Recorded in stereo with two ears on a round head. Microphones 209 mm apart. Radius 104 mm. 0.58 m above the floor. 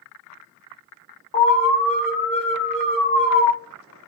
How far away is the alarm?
About 1.0 m.